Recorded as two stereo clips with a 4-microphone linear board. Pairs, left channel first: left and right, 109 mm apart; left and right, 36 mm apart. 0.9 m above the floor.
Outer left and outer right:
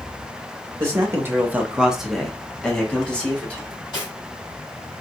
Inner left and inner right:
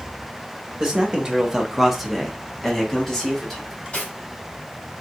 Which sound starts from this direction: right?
A man speaking, at 0.8 s.